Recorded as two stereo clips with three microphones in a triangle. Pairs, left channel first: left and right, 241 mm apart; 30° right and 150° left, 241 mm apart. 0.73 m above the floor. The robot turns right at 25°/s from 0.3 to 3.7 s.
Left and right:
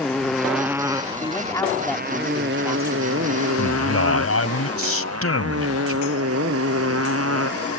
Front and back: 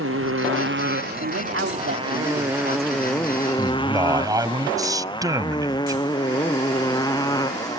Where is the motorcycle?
Straight behind; by 7.8 s 105° right.